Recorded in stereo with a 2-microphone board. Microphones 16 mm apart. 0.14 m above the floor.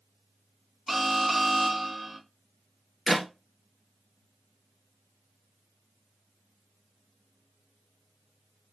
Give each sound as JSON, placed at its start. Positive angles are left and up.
{"t": 0.9, "sound": "an alarm", "side_deg": -10, "distance_m": 0.8}
{"t": 3.1, "sound": "a clap", "side_deg": 15, "distance_m": 1.7}